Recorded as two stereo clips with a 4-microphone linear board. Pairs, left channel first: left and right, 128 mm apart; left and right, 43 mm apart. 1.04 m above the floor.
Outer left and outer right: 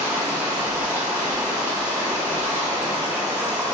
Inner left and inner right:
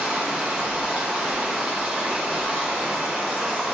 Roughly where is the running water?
Centre.